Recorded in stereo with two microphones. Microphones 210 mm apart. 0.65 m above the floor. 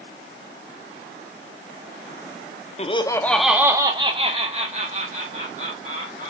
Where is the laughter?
30° left (ahead or behind), 0.6 m; by 6.3 s 45° right (ahead or behind), 2 m.